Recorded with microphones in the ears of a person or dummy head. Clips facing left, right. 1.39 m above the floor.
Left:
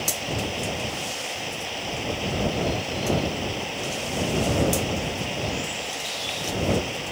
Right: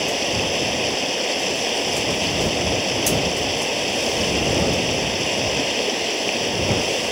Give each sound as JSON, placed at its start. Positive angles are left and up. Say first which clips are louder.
{"t": 0.0, "sound": "running water", "louder": "right 7 dB", "side_deg": -75}